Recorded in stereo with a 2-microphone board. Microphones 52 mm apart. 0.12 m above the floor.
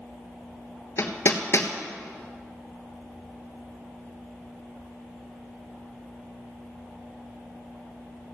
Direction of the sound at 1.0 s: 55° left (ahead or behind).